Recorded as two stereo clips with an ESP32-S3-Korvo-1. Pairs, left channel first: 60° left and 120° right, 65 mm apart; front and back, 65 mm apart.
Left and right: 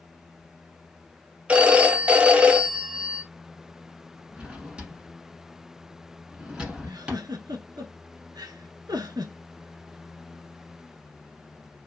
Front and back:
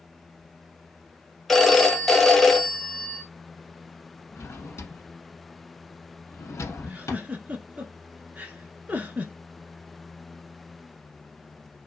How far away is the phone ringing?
About 0.5 m.